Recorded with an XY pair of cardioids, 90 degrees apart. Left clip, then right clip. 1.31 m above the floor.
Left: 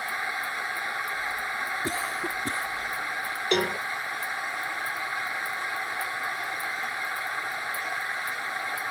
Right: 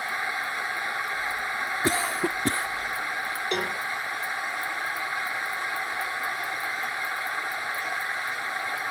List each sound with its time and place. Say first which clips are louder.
0.0 s a machine running: right 1 dB; 15° right
1.8 s a cough: right 4 dB; 65° right
3.5 s a cowbell: left 5 dB; 35° left